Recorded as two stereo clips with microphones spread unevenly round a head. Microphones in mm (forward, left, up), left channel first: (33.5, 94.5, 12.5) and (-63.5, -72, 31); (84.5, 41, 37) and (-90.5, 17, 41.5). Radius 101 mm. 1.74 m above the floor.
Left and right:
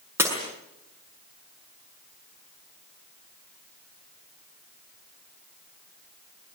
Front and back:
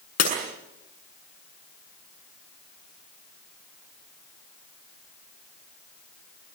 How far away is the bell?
No bell in this recording.